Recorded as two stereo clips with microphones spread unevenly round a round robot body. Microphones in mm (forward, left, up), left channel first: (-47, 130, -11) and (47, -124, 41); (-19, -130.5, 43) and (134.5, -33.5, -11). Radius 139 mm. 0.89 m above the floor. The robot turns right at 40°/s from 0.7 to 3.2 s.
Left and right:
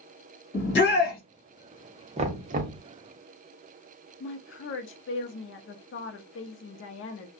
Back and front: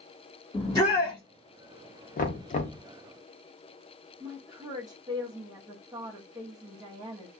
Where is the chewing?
I don't hear chewing.